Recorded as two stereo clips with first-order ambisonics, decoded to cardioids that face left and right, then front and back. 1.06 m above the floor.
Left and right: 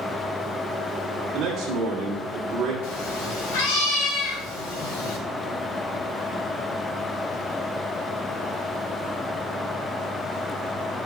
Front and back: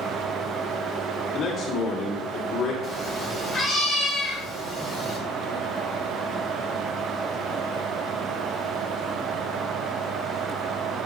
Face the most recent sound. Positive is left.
turn(degrees=90)